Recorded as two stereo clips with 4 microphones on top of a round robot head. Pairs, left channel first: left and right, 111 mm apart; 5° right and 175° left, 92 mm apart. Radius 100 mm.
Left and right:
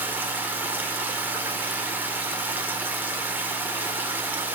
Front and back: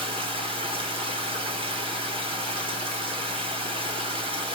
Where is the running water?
165° right, 1.8 m.